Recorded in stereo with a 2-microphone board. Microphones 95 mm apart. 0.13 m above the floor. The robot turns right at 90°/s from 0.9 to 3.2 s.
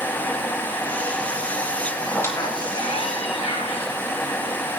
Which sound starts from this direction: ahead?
A squeak, at 2.1 s.